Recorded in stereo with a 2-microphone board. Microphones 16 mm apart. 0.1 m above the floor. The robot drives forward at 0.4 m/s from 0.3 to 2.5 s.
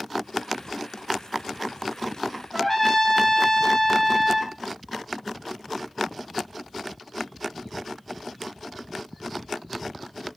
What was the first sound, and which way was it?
A trumpet, 15° left (ahead or behind).